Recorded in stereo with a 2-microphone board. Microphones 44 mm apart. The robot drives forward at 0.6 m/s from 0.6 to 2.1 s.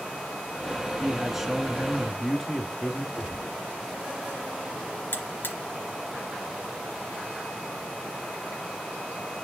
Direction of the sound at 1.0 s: 5° right (ahead or behind).